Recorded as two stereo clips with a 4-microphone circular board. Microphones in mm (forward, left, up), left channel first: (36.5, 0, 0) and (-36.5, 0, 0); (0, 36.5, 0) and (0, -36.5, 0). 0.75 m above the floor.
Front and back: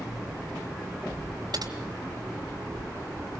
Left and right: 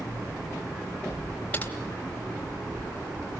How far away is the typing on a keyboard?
About 3 m.